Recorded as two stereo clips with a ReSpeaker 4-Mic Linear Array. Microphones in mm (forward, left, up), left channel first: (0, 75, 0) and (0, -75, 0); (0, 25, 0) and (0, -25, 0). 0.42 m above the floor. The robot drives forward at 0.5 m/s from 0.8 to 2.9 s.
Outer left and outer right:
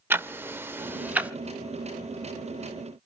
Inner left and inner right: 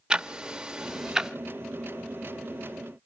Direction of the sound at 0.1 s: 15° right (ahead or behind).